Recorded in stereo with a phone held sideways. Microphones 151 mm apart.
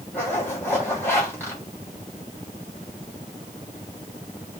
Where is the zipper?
15° left (ahead or behind), 2 m.